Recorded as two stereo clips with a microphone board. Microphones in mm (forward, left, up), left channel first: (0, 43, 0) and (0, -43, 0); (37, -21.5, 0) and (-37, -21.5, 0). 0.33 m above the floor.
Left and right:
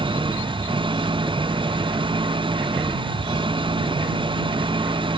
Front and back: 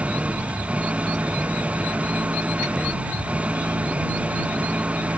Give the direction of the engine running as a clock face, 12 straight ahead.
4 o'clock.